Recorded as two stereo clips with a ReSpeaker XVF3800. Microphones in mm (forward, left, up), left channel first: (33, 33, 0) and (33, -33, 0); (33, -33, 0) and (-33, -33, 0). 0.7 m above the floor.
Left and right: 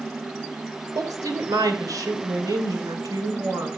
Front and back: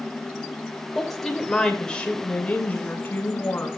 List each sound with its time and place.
0.9 s a woman speaking: 90° right, 2.5 m; by 3.7 s 60° right, 3 m